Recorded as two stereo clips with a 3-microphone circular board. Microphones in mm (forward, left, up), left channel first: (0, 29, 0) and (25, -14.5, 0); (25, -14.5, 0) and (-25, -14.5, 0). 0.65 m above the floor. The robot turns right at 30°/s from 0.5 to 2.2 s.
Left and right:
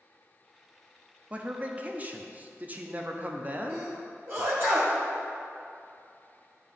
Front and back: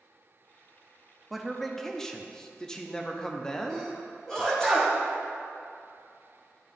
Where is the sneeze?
70° right, 1.7 m.